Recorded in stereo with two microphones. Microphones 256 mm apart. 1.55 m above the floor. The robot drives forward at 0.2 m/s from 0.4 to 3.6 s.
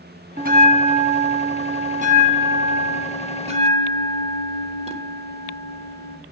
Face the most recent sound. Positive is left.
turn(degrees=-25)  # may be behind; listen again after turning